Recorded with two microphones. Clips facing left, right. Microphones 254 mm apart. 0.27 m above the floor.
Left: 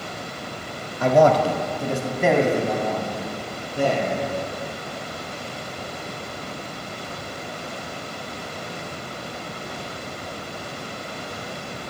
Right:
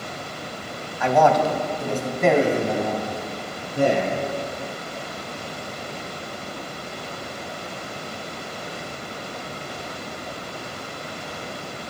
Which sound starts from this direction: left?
A man speaking, at 1.0 s.